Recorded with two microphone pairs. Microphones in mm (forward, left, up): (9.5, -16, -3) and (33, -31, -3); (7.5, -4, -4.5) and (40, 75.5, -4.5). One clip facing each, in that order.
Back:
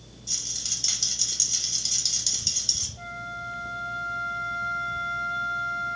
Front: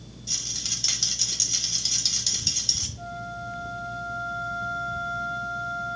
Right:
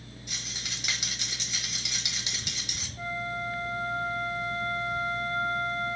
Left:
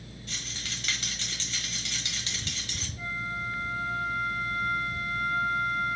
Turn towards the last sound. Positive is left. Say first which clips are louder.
# even, right 2 dB
turn(degrees=-155)